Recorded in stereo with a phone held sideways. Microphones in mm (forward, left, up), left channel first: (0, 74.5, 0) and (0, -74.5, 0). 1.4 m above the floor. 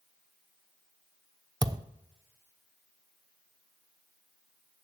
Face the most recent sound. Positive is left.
turn(degrees=-25)  # may be behind; listen again after turning